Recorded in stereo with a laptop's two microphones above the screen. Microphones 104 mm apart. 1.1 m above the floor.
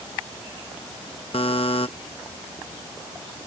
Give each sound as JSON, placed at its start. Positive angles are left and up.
{"t": 1.3, "sound": "a buzzer", "side_deg": 65}